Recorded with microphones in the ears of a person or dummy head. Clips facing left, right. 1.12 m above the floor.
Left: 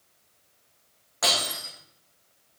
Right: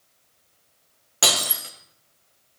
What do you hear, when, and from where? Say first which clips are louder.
1.2 s breaking glass: right 2 dB; 55° right (ahead or behind), 2 m